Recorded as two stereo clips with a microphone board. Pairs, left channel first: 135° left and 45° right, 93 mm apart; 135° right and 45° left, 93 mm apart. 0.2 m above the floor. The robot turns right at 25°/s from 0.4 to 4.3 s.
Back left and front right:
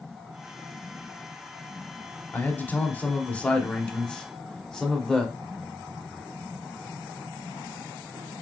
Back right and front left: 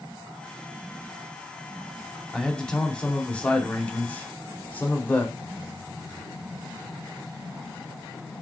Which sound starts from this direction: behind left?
A man speaking, at 2.3 s.